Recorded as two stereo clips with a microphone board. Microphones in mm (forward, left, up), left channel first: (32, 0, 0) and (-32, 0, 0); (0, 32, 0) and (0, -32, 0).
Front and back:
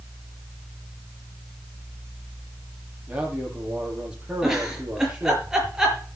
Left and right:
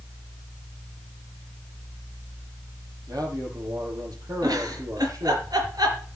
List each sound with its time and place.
3.1 s a man speaking: 105° right, 8 m
4.4 s a giggle: 100° right, 5.5 m